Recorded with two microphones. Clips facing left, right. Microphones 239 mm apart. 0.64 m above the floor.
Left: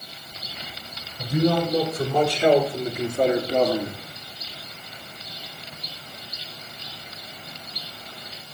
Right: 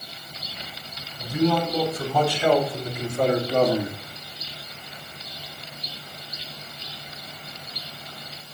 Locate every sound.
1.2 s a man speaking: 65° left (ahead or behind), 4 m; by 4.0 s 20° right (ahead or behind), 1.3 m